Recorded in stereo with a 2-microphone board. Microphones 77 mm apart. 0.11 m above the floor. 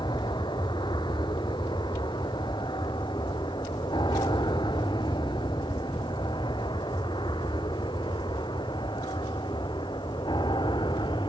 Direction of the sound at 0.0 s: 75° left (ahead or behind).